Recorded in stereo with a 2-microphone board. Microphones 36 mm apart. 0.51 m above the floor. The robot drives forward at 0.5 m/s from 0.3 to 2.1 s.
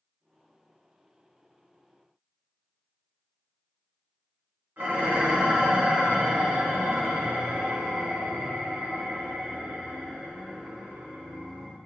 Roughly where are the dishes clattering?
Right.